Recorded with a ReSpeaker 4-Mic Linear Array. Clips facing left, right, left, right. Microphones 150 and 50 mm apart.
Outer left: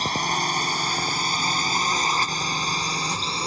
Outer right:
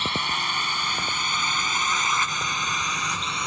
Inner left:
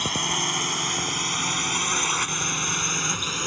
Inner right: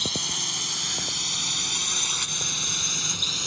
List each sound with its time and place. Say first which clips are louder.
0.0 s a drone: outer left 4 dB, inner left 5 dB; 40° left (ahead or behind); by 3.5 s 35° left (ahead or behind)